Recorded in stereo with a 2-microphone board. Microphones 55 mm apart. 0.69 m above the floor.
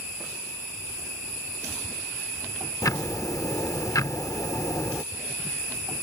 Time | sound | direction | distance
2.8 | ticking | 80° left | ?